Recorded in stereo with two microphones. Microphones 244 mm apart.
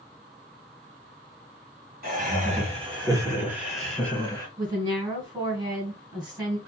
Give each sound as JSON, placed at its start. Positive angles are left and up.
{"t": 2.0, "sound": "laughter", "side_deg": -35, "distance_m": 1.7}
{"t": 4.6, "sound": "a woman speaking", "side_deg": -15, "distance_m": 1.7}